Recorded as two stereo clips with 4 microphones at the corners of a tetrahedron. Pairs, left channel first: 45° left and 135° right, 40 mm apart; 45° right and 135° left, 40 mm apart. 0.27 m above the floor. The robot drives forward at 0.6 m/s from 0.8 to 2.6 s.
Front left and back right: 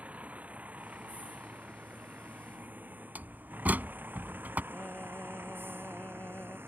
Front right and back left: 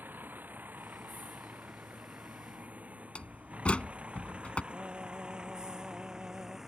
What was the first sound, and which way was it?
A vehicle, 175° left.